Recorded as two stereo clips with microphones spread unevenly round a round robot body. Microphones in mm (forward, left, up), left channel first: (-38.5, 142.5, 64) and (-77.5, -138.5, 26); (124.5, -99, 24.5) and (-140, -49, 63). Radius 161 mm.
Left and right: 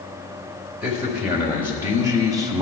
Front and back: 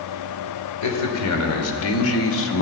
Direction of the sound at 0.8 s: 15° right.